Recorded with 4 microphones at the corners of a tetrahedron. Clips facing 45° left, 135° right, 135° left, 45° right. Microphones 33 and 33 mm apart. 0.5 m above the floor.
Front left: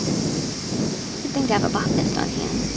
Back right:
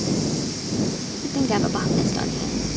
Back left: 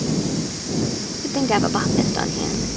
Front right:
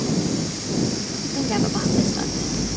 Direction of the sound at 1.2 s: 110° left.